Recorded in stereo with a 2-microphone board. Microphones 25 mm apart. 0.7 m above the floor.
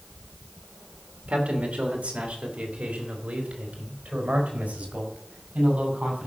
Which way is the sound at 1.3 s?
65° right (ahead or behind).